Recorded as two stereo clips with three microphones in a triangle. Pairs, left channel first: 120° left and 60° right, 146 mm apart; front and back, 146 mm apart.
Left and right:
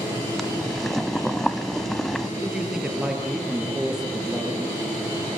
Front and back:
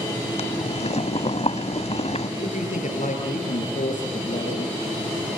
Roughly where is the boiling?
Ahead left.